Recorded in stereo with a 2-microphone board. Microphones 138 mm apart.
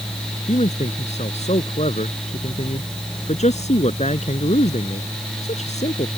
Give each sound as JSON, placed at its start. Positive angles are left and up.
{"t": 0.5, "sound": "a man speaking", "side_deg": 55}